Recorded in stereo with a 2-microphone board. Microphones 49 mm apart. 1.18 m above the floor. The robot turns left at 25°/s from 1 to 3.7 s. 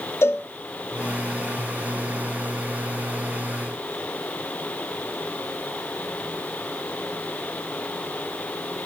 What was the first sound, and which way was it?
A cowbell, 55° left (ahead or behind).